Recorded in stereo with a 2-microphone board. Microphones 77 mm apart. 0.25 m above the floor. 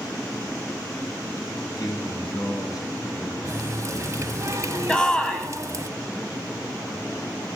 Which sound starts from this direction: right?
A running tap, at 3.5 s.